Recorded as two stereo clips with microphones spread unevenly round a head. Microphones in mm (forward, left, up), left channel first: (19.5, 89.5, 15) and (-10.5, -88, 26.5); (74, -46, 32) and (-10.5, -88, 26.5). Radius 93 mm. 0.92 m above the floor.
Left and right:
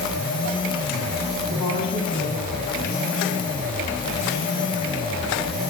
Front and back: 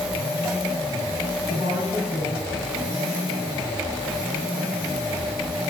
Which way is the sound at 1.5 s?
140° left.